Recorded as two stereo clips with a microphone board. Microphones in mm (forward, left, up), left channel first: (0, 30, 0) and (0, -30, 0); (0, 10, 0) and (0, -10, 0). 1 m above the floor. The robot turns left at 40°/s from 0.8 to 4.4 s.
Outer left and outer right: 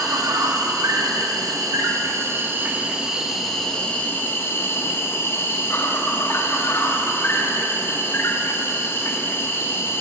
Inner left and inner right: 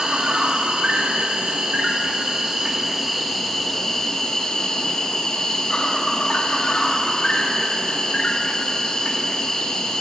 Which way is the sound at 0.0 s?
75° right.